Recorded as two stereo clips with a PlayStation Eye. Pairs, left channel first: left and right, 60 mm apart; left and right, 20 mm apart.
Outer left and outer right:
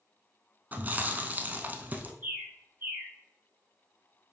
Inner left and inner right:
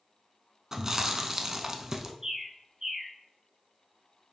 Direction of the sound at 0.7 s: 30° right (ahead or behind).